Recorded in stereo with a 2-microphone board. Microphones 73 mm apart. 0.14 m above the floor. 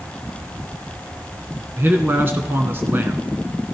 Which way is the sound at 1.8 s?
30° right (ahead or behind).